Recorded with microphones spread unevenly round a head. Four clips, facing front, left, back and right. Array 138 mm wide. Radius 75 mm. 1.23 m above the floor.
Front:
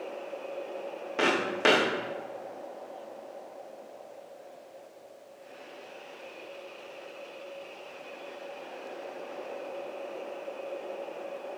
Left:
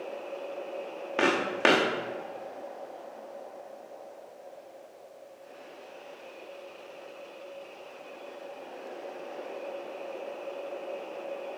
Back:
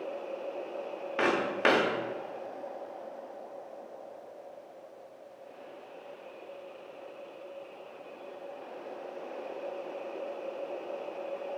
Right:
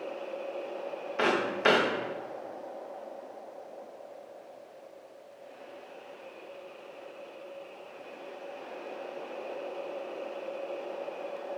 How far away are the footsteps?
About 3.5 m.